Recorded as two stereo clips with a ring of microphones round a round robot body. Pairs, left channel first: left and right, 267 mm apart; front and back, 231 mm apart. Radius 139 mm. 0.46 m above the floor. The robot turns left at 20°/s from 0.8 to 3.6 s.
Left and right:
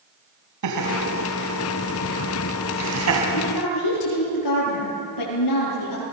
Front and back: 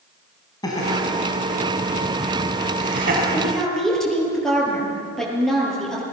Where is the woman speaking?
95° left, 9.5 m; by 6.0 s 90° left, 9.5 m.